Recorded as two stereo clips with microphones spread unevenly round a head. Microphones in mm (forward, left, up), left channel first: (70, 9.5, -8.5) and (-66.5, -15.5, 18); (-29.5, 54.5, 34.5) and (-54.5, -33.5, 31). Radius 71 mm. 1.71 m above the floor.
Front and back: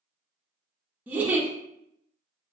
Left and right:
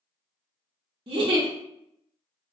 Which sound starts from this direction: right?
A giggle, at 1.1 s.